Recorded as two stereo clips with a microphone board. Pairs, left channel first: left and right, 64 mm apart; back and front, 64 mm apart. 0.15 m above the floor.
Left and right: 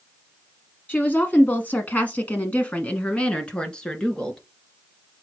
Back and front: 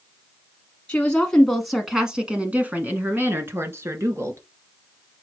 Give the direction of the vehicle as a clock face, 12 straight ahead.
No vehicle in this recording.